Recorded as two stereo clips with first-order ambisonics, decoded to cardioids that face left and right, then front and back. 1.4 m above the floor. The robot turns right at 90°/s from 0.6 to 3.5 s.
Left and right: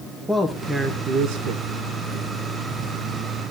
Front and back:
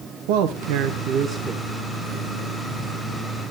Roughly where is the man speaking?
Behind.